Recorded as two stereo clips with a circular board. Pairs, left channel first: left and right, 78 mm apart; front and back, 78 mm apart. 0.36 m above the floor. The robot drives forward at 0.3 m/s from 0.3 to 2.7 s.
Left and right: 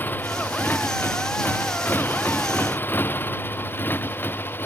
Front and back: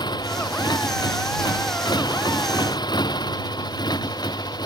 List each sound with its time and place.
0.0 s a motorcycle: 25° left